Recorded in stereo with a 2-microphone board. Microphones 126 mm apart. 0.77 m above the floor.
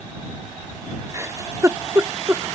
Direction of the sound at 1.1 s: 25° right (ahead or behind).